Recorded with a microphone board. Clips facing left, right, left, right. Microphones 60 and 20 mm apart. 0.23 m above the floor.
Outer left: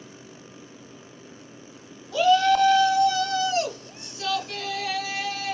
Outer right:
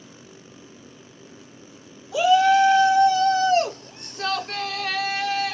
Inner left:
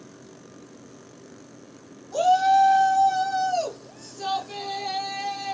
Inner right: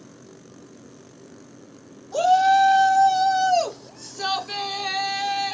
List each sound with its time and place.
2.1 s a shout: 10° right (ahead or behind), 1.0 m; by 5.5 s 55° right (ahead or behind), 2 m